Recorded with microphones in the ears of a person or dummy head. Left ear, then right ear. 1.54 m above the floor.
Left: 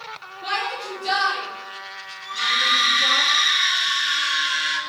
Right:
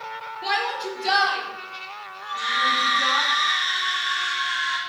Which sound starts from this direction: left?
A scream, at 2.2 s.